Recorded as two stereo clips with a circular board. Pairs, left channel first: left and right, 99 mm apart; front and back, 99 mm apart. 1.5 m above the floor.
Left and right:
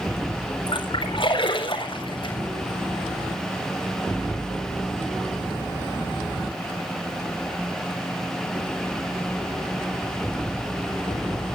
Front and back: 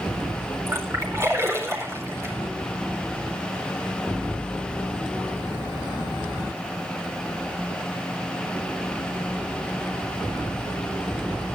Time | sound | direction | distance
0.7 | a splash | 120° left | 4 m